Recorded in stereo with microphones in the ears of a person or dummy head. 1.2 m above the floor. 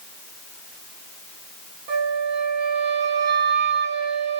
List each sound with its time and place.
1.9 s a flute: 55° right (ahead or behind), 1.8 m